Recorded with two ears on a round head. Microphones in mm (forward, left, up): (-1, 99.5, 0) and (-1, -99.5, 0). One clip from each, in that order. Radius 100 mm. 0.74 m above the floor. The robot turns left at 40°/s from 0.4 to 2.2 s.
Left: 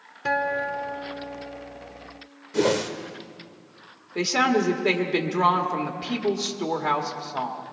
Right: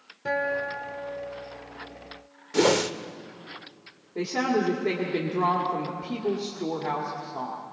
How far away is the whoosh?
About 0.6 m.